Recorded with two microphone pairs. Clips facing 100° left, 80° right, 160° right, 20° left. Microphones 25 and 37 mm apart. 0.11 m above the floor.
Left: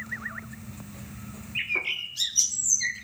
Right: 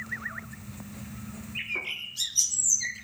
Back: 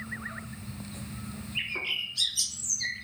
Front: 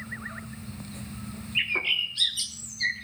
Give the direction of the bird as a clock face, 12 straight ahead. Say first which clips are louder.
Left 5 dB, front 6 dB; 10 o'clock.